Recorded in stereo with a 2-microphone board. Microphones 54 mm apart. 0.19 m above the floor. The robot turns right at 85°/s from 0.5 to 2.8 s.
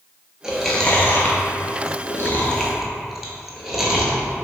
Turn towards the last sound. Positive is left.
turn(degrees=-5)  # may be behind; listen again after turning